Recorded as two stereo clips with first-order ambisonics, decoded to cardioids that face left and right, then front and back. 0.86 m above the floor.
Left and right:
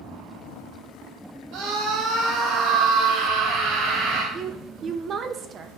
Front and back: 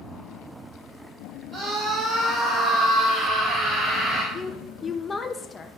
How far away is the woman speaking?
About 0.6 m.